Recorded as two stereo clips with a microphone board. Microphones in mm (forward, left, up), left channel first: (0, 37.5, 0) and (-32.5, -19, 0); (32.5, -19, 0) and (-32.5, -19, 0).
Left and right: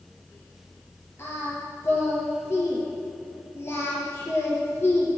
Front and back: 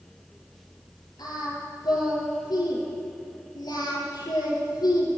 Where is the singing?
10° left, 6 m.